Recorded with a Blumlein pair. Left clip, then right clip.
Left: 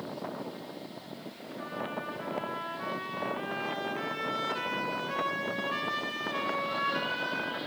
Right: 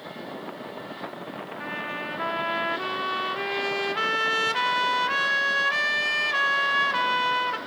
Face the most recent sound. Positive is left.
turn(degrees=-45)